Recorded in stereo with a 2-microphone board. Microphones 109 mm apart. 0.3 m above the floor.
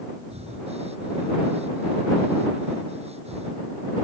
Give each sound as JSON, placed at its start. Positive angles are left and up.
{"t": 0.3, "sound": "breathing", "side_deg": -70}